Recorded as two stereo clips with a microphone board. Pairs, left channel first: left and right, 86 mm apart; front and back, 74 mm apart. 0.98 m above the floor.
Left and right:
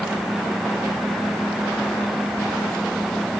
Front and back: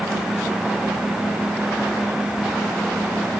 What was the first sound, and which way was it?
Only background noise.